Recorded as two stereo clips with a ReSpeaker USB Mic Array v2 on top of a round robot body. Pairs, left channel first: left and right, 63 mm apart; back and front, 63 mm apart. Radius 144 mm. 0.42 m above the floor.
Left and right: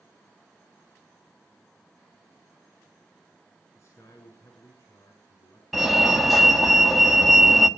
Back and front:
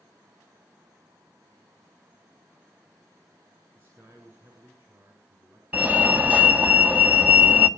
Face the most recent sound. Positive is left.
turn(degrees=-5)